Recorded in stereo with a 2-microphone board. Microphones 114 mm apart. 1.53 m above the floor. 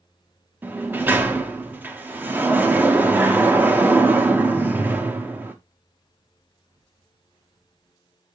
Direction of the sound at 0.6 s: 15° right (ahead or behind).